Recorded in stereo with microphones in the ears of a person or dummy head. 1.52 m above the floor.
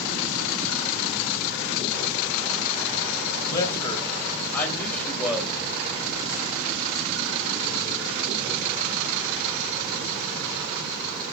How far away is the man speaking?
About 3.5 m.